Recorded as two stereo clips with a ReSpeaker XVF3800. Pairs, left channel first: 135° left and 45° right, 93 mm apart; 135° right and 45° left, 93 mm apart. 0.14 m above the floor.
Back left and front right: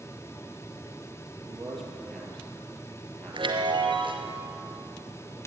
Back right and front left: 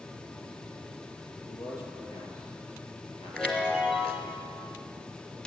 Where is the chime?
55° right, 1.3 m.